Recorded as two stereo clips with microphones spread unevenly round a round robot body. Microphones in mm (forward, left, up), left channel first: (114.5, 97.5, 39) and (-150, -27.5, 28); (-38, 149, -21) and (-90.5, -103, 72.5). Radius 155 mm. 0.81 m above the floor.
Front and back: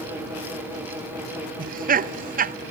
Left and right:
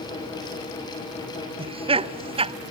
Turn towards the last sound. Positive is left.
turn(degrees=170)